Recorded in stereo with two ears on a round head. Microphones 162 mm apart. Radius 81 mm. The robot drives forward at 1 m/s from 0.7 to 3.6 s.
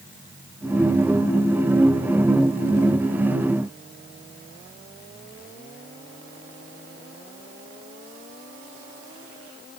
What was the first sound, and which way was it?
Only background noise.